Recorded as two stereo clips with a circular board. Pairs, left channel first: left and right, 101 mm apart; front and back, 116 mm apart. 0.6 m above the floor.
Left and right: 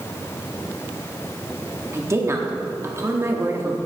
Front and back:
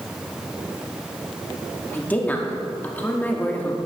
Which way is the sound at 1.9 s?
60° right.